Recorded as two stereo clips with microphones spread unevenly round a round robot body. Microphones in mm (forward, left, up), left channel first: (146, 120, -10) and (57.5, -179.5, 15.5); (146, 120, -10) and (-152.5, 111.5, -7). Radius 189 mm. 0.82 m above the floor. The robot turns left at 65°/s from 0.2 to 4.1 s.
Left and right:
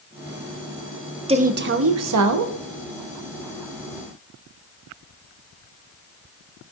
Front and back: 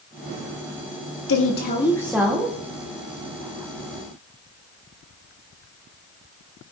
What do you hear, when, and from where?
1.3 s a woman speaking: 35° right, 1.3 m; by 2.5 s 115° right, 1.3 m